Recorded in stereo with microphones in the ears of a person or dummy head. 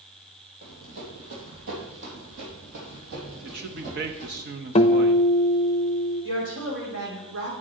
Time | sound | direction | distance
0.6 | running footsteps | 65° right (ahead or behind) | 3 m
3.4 | a man speaking | 45° right (ahead or behind) | 0.7 m
4.8 | a guitar | 30° left (ahead or behind) | 0.6 m
6.2 | a woman speaking | 65° right (ahead or behind) | 4.5 m